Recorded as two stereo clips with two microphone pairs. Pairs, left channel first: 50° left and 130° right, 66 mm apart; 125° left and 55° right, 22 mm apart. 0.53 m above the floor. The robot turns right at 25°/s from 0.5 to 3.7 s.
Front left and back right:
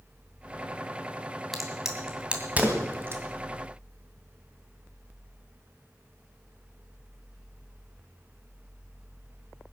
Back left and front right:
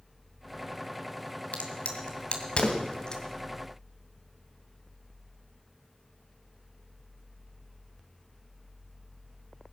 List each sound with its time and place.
1.5 s a crack: 140° left, 2.5 m; by 3.2 s 175° right, 2.5 m